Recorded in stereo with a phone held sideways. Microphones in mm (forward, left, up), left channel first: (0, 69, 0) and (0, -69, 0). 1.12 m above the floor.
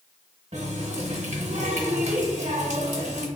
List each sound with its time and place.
0.5 s a running tap: 55° right (ahead or behind), 0.8 m